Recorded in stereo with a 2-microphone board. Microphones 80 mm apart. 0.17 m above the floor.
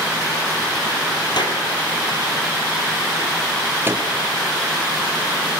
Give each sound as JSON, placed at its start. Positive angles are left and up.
{"t": 1.4, "sound": "a clap", "side_deg": 65, "distance_m": 4.0}
{"t": 3.9, "sound": "a microwave", "side_deg": -30, "distance_m": 3.0}